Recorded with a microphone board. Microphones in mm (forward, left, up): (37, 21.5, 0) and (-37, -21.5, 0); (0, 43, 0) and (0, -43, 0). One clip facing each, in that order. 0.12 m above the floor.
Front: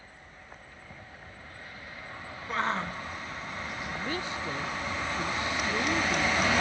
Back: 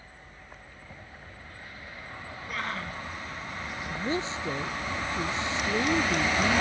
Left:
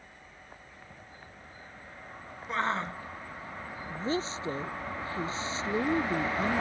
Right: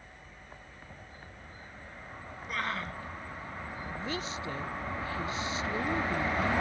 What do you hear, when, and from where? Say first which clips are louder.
2.5 s a shout: front 5 dB, left 5 dB; 55° left
3.9 s a woman speaking: back 5 dB, left 6 dB; 145° left